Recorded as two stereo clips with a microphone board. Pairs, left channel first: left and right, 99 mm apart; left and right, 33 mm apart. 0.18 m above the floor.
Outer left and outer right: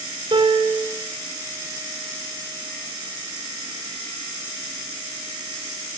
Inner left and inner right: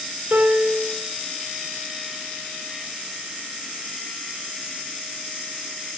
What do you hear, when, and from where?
0.3 s a piano: 55° right (ahead or behind), 1.5 m